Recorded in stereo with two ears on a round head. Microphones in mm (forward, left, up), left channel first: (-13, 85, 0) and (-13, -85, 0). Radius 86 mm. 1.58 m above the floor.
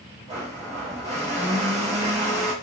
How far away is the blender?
About 1.3 m.